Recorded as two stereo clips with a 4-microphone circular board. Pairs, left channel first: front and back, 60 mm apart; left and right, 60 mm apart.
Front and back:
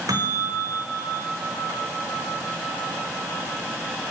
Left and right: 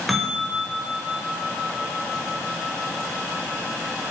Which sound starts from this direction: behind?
A bell, at 0.1 s.